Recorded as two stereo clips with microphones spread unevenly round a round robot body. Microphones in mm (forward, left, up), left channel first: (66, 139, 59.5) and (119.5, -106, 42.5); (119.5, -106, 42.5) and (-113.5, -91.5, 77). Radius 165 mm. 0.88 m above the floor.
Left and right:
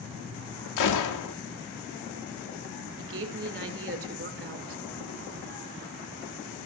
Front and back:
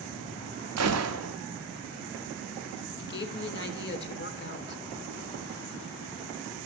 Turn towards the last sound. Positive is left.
turn(degrees=-45)